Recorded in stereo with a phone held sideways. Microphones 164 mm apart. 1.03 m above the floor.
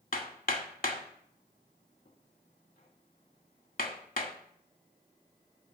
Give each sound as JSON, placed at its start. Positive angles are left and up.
{"t": 0.1, "sound": "hammering", "side_deg": 60, "distance_m": 1.0}